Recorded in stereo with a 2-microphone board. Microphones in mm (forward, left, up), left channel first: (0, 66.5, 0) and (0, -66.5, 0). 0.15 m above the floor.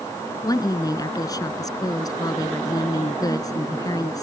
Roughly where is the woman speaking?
Left.